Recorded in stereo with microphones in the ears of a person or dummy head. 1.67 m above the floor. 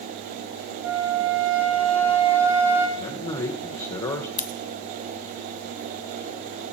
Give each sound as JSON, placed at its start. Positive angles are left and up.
{"t": 0.8, "sound": "a flute", "side_deg": -15, "distance_m": 4.5}
{"t": 3.0, "sound": "a man speaking", "side_deg": 25, "distance_m": 0.8}
{"t": 4.4, "sound": "scissors", "side_deg": 40, "distance_m": 0.6}